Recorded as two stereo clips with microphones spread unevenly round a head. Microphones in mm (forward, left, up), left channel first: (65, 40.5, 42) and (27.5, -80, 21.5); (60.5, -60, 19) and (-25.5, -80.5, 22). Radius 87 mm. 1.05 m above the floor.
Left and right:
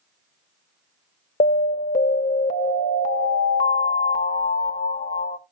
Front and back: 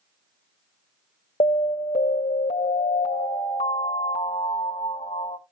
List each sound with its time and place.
1.4 s an alarm: 50° left, 1.0 m